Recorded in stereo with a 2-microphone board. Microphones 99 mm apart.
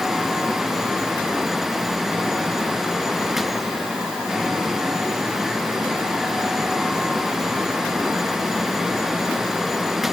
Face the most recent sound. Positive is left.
No sound to turn to.